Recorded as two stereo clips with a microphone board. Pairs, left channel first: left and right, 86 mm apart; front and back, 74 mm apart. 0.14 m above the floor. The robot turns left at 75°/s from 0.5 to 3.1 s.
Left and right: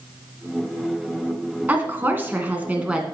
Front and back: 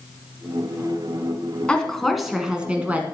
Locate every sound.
1.7 s a woman speaking: 55° right, 1.5 m; by 3.0 s 155° right, 1.5 m